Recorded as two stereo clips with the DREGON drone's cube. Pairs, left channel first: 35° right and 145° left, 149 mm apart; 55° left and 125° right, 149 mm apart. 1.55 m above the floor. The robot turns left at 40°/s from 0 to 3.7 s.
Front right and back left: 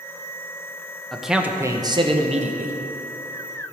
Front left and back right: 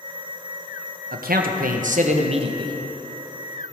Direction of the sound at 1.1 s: 120° right.